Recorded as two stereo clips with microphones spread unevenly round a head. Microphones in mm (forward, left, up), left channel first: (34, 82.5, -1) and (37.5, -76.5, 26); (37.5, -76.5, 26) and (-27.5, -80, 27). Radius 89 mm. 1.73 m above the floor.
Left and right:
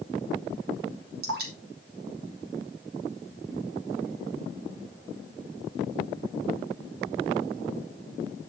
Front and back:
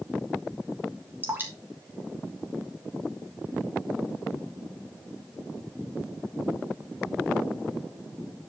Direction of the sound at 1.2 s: 120° right.